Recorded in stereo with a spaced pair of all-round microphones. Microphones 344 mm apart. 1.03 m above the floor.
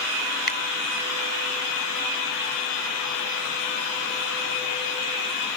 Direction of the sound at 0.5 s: 75° left (ahead or behind).